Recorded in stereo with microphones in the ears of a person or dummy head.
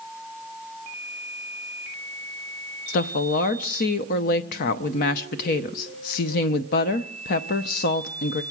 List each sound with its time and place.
2.9 s a woman speaking: 55° left (ahead or behind), 0.5 m